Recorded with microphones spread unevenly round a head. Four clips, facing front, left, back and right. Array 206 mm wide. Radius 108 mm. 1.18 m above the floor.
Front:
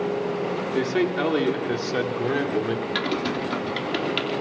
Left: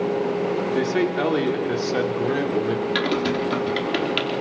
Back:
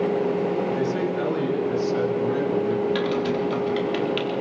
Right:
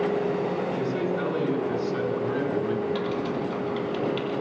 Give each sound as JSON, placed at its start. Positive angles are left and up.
{"t": 0.7, "sound": "a man speaking", "azimuth_deg": 45, "distance_m": 4.0}
{"t": 3.0, "sound": "typing on a keyboard", "azimuth_deg": 70, "distance_m": 3.5}